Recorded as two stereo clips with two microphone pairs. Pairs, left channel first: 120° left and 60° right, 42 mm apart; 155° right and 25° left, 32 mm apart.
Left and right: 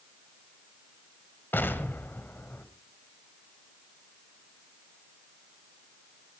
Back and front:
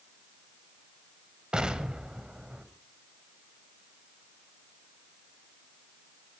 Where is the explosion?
90° left, 1.5 m.